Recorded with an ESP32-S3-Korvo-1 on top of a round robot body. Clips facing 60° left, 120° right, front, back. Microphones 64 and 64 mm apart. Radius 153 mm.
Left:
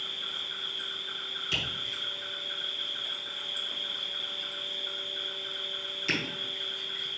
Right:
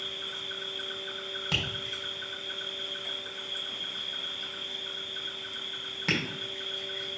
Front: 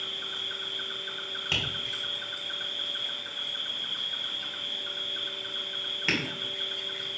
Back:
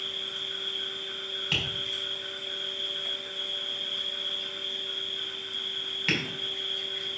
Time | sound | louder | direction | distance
0.0 | an insect | even, even | 50° right | 3 m
1.5 | tapping | right 1 dB, even | 80° right | 3.5 m